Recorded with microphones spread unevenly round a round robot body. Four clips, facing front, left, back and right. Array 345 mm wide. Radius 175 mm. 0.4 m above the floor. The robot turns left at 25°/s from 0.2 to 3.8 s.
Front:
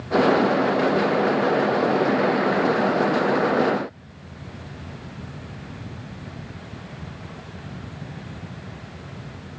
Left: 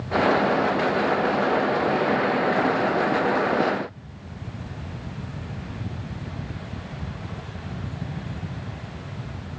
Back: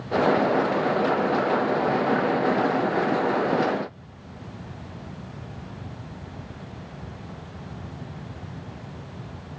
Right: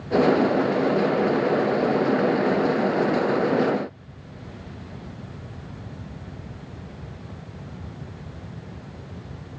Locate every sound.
Only background noise.